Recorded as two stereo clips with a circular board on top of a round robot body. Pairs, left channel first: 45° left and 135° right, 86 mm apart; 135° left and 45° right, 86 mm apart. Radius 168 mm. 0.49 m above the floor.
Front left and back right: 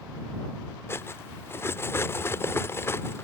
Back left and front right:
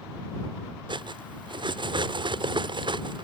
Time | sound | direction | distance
0.9 | cutlery clinking | 20° right | ?